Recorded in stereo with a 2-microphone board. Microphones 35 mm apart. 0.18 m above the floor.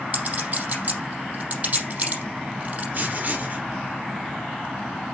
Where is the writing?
45° right (ahead or behind), 4.5 m.